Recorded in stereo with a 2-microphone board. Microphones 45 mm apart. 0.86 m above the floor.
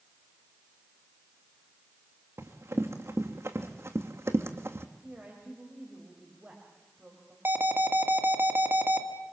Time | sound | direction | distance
2.4 | running footsteps | 75° right (ahead or behind) | 3.5 m
5.0 | a woman speaking | 30° right (ahead or behind) | 5 m
7.5 | an alarm | 50° right (ahead or behind) | 1.9 m